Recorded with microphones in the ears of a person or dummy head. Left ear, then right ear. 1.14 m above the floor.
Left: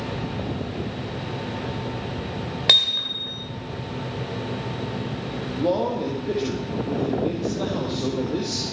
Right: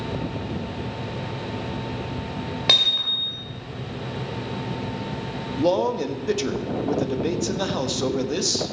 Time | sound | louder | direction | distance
2.7 | hammering | even | centre (ahead or behind) | 2.5 m
5.6 | a man speaking | right 2 dB | 80° right | 1.5 m